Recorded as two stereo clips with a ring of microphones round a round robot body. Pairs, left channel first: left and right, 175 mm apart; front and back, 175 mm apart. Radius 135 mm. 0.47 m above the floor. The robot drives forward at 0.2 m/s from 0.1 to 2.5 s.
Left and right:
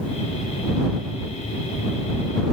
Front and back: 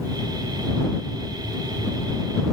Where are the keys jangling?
No keys jangling in this recording.